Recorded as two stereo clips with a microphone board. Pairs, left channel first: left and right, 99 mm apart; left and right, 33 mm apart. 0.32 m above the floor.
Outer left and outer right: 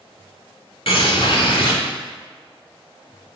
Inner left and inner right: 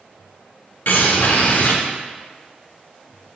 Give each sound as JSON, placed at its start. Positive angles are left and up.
{"t": 0.9, "sound": "a bird", "side_deg": 65, "distance_m": 0.7}